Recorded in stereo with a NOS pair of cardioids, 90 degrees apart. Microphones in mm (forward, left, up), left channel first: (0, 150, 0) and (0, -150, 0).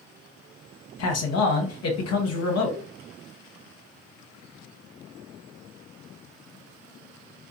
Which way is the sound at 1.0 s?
60° left.